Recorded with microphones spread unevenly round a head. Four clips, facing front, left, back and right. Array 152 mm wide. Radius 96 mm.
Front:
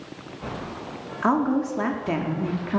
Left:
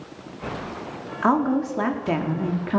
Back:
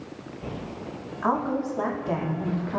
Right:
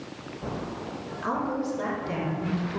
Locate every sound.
1.2 s a woman speaking: 50° left, 4.5 m; by 2.8 s 65° left, 4.5 m